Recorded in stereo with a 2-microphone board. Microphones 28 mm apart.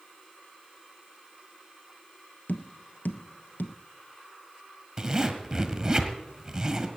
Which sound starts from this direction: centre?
A zipper, at 5.0 s.